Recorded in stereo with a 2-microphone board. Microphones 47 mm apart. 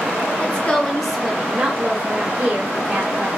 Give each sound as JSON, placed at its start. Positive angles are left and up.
{"t": 0.4, "sound": "a woman speaking", "side_deg": 30, "distance_m": 0.8}